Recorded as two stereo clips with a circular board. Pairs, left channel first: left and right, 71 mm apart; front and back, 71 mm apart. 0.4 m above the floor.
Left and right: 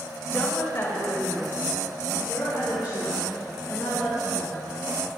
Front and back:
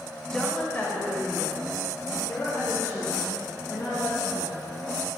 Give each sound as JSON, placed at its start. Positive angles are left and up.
{"t": 0.3, "sound": "a woman speaking", "azimuth_deg": 75, "distance_m": 1.0}